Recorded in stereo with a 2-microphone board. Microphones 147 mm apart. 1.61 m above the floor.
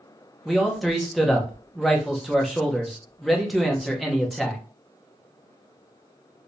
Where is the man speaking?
Centre (ahead or behind), 0.9 m.